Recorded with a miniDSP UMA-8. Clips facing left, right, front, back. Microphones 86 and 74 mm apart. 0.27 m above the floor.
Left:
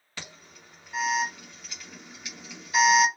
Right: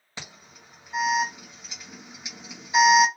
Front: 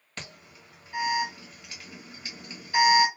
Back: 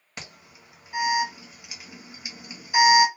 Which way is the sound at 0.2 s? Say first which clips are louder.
Right 1 dB, even; 125° right.